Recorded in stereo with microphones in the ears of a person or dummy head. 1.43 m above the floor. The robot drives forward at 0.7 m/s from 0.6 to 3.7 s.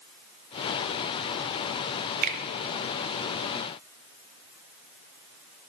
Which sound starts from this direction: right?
A finger snap, at 2.2 s.